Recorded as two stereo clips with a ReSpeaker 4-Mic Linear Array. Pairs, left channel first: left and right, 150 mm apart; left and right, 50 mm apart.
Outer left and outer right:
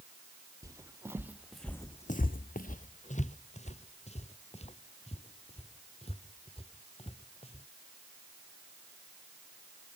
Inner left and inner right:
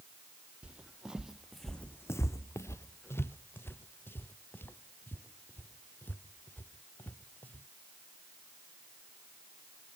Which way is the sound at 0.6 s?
20° right (ahead or behind).